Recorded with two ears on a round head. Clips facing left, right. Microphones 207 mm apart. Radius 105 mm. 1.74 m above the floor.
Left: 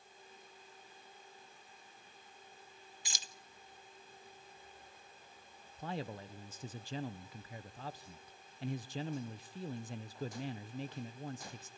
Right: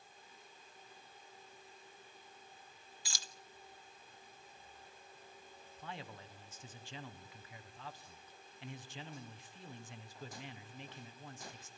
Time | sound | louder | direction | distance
3.0 | keys jangling | even | 15° left (ahead or behind) | 0.7 m
5.8 | a man speaking | left 8 dB | 30° left (ahead or behind) | 0.8 m